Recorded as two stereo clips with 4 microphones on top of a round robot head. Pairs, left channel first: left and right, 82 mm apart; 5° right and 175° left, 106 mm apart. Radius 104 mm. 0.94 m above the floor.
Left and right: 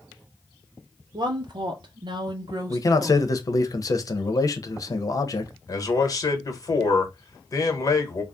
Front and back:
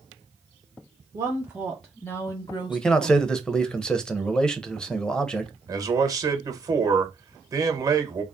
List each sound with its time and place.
1.1 s a woman speaking: 120° right, 0.8 m; by 3.4 s 30° right, 1.2 m
2.7 s a man speaking: 80° left, 0.9 m
5.7 s a man speaking: 125° left, 1.3 m